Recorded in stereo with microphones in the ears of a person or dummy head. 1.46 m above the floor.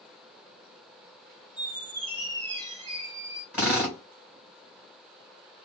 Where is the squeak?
40° right (ahead or behind), 2.0 m.